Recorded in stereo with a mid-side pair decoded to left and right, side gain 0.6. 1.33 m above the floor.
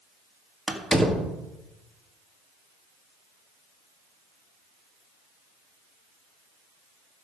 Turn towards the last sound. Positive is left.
turn(degrees=5)